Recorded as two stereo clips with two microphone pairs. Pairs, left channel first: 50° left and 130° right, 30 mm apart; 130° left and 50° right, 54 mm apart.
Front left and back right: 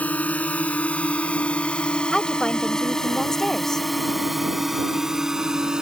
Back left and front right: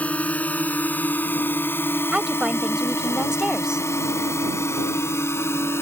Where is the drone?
70° left; by 5.8 s 160° left.